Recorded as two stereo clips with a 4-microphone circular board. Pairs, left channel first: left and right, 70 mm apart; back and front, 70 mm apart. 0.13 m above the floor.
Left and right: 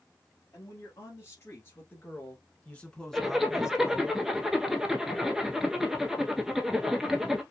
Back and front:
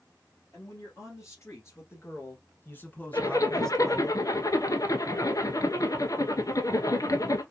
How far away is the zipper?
About 0.9 m.